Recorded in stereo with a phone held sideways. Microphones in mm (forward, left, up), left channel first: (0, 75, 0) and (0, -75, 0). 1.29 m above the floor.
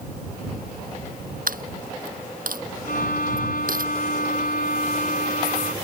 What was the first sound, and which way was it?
A dropped coin, 65° right (ahead or behind).